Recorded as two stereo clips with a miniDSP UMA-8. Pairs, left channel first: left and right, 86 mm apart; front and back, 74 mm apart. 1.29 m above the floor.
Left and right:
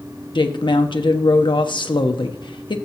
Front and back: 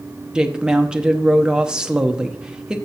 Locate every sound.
0.3 s a woman speaking: 100° left, 0.9 m